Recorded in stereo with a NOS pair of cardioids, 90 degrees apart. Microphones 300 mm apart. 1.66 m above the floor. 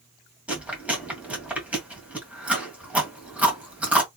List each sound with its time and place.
0.5 s chewing: 5° right, 1.8 m